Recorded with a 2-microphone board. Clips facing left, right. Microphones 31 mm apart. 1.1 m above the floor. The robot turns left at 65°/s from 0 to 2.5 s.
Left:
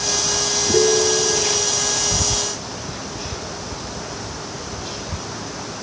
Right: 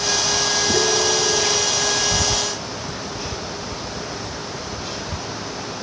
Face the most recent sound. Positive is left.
turn(degrees=-75)